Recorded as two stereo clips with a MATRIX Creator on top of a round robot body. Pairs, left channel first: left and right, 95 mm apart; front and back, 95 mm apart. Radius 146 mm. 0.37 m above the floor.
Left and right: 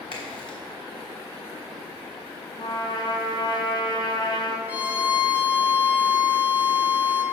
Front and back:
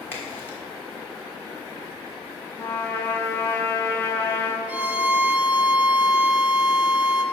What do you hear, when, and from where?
0.1 s a crack: 65° left, 3 m
2.6 s a trumpet: 65° left, 1.5 m
4.7 s a violin: 130° right, 1.2 m